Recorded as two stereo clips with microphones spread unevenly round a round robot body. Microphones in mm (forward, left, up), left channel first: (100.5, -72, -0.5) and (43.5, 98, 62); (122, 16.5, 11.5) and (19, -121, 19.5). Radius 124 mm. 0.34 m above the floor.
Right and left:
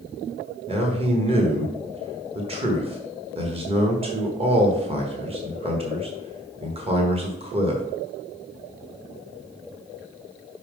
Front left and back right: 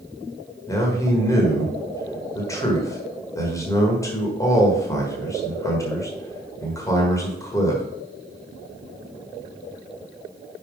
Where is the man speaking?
60° left, 1.3 m.